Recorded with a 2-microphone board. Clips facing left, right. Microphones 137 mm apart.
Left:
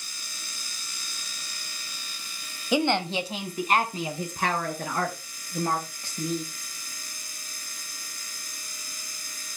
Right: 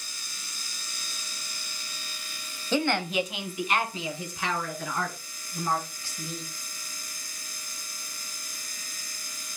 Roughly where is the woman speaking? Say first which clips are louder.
Left 2 dB; centre.